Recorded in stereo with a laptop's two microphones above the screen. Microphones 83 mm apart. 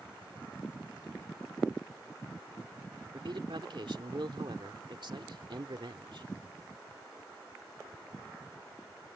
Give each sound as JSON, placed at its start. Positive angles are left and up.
{"t": 3.1, "sound": "a man speaking", "side_deg": -70}